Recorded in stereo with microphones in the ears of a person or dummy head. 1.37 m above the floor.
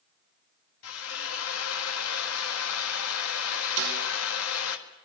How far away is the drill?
About 1.7 m.